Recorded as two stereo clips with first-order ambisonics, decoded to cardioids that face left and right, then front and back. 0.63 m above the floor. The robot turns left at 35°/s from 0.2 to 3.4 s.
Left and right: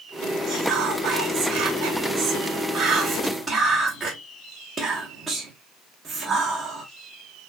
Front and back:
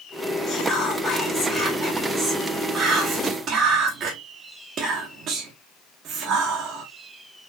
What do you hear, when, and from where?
0.5 s whispering: 70° right, 1.2 m; by 6.8 s 170° right, 1.2 m